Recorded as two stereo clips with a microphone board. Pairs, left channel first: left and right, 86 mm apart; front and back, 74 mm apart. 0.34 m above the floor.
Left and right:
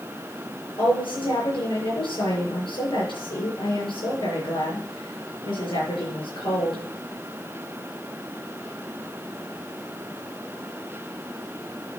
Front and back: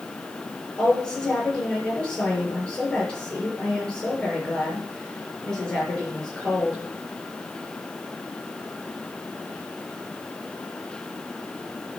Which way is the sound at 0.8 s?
75° left.